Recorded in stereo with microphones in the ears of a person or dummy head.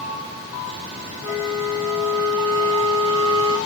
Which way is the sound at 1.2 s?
30° right (ahead or behind).